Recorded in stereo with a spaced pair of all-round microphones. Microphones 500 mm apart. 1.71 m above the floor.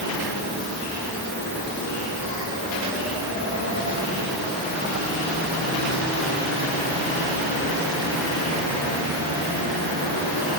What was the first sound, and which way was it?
Only background noise.